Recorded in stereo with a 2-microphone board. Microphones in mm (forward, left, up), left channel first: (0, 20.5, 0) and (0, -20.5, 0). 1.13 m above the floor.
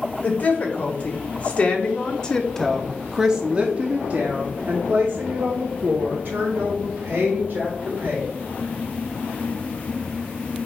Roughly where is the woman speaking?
Left.